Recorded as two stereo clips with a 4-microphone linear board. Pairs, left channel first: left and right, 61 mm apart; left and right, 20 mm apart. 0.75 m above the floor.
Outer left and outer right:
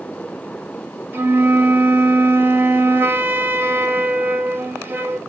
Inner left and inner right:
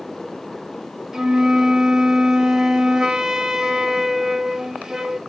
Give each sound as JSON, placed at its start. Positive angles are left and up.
{"t": 1.1, "sound": "a flute", "side_deg": -35, "distance_m": 0.6}